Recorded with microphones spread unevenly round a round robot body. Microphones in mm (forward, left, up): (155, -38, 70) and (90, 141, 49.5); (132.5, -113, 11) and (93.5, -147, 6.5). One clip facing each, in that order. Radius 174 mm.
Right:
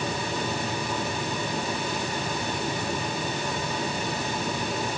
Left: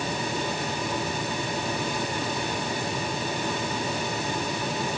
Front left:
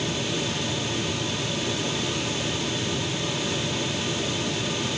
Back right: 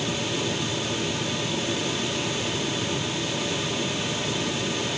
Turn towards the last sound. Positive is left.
No sound to turn to.